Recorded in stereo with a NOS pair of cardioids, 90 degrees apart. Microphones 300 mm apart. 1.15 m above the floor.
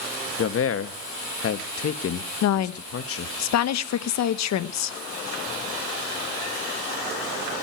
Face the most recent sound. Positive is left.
turn(degrees=65)